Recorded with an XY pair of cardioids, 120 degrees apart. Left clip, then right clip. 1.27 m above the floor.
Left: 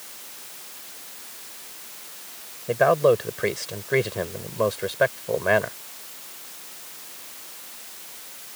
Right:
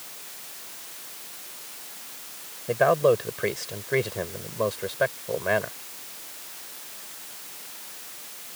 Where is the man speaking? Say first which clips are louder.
Left 2 dB; 10° left; by 5.8 s 25° left.